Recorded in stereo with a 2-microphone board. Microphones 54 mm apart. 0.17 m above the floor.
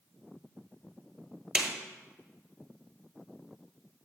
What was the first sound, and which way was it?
A snare drum, 15° right (ahead or behind).